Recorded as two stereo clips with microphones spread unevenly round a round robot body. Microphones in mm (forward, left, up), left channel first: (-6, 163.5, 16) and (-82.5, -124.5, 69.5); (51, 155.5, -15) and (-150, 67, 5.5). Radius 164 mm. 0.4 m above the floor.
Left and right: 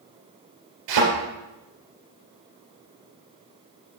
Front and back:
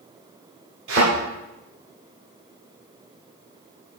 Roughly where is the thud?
Right.